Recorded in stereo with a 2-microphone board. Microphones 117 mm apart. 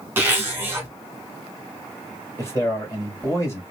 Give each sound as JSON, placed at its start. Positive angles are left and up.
{"t": 0.2, "sound": "a zipper", "side_deg": -20, "distance_m": 1.5}
{"t": 2.4, "sound": "a man speaking", "side_deg": 25, "distance_m": 1.8}